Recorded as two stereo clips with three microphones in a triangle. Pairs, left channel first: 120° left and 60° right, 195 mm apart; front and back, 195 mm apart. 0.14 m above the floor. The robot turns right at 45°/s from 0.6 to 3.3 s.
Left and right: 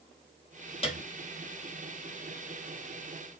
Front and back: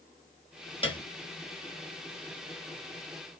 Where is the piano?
65° left, 0.7 m; by 1.1 s 70° left, 0.7 m.